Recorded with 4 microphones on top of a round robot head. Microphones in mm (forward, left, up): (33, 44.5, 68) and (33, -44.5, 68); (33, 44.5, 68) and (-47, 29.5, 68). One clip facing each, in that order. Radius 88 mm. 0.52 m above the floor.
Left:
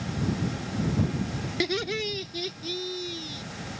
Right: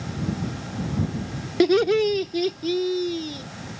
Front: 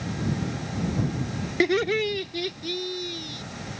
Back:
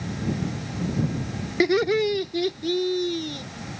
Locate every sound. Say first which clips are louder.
1.6 s laughter: right 13 dB, back 3 dB; 90° right; by 3.4 s 130° right